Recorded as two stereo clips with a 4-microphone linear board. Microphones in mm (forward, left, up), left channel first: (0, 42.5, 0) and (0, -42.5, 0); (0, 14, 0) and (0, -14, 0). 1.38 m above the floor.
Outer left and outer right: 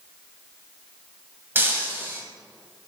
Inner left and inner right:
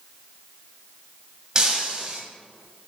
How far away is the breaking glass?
About 1.3 m.